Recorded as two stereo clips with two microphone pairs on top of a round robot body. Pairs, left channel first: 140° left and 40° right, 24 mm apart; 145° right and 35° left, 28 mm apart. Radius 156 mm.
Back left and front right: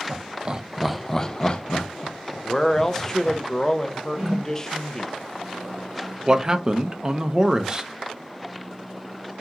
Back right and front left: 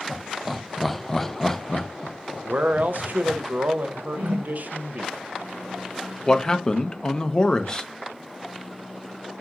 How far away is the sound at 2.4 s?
About 0.5 m.